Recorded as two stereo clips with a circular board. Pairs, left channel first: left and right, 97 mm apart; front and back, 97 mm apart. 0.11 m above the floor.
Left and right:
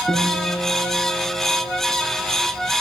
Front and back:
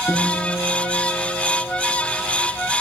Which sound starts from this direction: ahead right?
A guitar, at 0.1 s.